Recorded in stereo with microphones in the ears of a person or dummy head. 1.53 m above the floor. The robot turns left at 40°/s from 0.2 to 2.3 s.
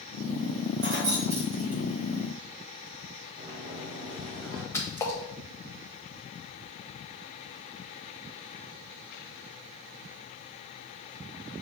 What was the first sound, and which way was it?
Keys jangling, 55° right (ahead or behind).